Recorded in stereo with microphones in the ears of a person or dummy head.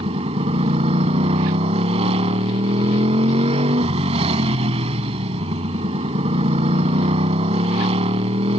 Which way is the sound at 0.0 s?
35° right (ahead or behind).